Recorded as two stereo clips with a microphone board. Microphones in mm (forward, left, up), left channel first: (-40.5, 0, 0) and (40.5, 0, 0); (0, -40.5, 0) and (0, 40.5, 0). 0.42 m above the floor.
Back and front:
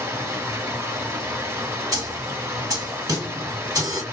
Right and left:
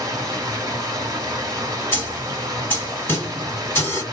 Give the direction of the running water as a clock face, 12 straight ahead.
10 o'clock.